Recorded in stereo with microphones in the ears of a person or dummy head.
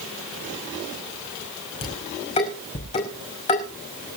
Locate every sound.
1.8 s dishes clattering: 30° left (ahead or behind), 5.5 m